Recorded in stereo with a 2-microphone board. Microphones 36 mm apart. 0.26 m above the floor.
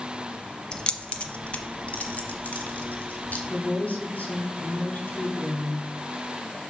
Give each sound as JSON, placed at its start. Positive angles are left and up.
{"t": 0.7, "sound": "keys jangling", "side_deg": 20, "distance_m": 0.7}
{"t": 3.5, "sound": "a woman speaking", "side_deg": 40, "distance_m": 1.8}